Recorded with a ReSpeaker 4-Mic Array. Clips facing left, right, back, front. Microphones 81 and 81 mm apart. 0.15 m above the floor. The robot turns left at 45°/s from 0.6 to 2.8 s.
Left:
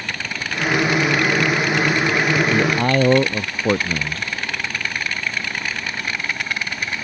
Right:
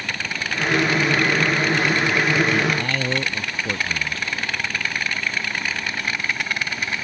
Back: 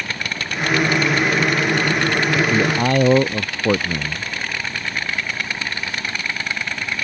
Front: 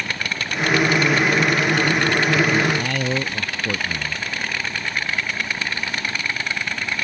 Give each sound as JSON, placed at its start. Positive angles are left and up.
{"t": 2.5, "sound": "a man speaking", "azimuth_deg": 150}